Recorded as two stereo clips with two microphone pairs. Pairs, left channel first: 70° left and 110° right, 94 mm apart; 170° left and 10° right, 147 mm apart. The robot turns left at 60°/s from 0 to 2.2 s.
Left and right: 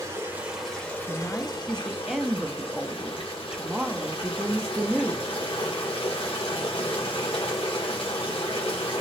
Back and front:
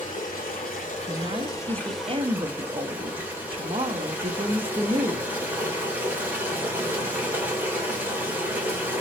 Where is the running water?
160° right, 2 m; by 9.0 s 65° left, 2 m.